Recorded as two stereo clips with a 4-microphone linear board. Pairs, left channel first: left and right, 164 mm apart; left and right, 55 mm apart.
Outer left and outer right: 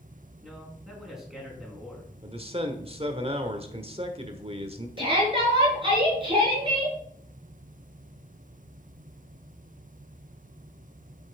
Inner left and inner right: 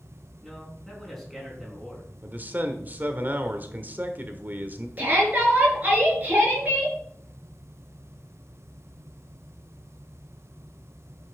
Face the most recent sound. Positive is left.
turn(degrees=-30)  # may be behind; listen again after turning